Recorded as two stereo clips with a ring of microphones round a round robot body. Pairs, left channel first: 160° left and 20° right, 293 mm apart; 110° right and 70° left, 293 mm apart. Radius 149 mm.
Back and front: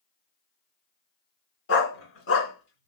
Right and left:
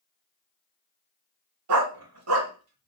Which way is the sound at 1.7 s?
110° left.